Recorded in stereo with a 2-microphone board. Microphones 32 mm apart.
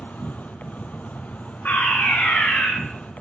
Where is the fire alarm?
75° left (ahead or behind), 9 m.